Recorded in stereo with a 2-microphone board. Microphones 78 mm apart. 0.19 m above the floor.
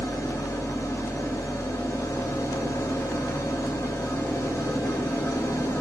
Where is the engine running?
45° left (ahead or behind), 1.2 m.